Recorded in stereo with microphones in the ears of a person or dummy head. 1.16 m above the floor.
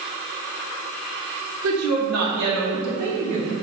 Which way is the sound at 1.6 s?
90° right.